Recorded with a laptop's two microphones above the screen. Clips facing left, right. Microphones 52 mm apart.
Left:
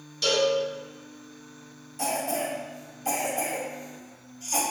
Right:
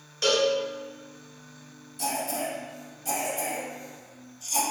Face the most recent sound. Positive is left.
turn(degrees=45)  # may be behind; listen again after turning